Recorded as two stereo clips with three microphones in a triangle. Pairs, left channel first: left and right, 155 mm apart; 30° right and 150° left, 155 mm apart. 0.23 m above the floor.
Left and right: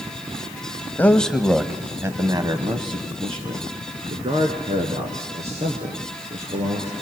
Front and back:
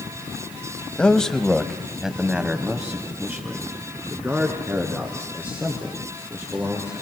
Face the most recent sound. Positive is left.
turn(degrees=-135)